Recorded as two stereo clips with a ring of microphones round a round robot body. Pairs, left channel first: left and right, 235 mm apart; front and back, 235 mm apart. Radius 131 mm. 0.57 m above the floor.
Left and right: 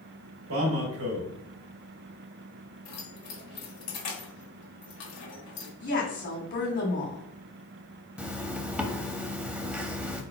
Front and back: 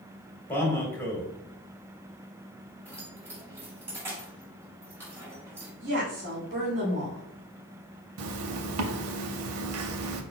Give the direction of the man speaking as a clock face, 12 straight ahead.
3 o'clock.